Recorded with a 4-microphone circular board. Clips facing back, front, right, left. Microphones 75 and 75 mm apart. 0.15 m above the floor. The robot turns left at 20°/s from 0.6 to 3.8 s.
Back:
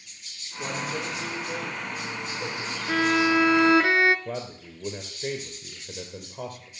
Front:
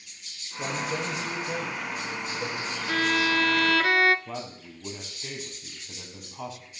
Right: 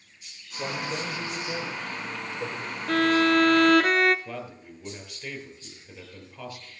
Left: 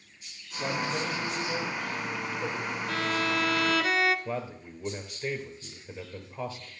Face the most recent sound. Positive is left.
turn(degrees=160)